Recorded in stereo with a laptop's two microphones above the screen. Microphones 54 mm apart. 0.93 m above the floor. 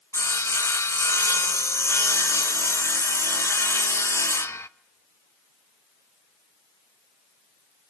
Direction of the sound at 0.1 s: 60° left (ahead or behind).